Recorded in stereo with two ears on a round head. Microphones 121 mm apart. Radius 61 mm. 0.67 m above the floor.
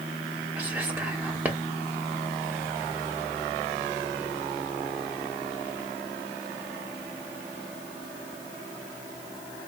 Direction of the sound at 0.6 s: 15° right (ahead or behind).